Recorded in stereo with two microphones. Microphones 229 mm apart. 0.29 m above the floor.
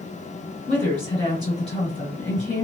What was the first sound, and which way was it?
A woman speaking, 40° left (ahead or behind).